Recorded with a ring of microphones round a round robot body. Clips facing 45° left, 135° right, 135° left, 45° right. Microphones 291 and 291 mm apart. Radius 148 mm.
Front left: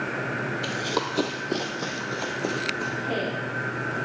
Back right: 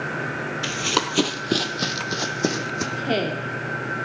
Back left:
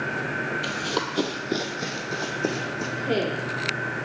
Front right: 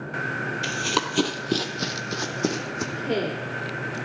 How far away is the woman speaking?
About 1.6 m.